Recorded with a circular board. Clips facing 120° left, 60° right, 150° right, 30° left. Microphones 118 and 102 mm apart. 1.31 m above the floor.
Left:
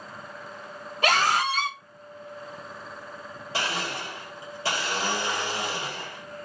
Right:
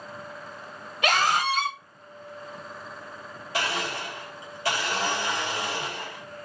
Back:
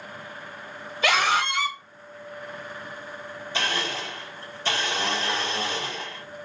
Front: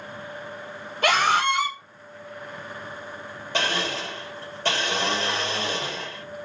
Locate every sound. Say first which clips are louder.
1.0 s a scream: even, front 2 dB; 65° left, 1.4 m
3.5 s a blender: right 1 dB, front 3 dB; 60° left, 1.6 m